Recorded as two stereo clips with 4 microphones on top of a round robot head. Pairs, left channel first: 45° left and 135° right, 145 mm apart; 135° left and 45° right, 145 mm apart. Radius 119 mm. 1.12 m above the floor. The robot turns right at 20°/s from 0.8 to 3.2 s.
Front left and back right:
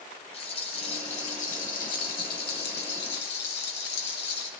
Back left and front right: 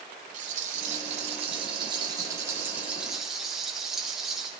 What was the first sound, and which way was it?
A rattle, 5° right.